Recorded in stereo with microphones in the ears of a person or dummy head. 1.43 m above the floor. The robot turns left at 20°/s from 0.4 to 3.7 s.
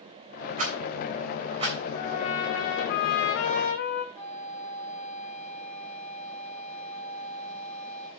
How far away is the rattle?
About 3.5 m.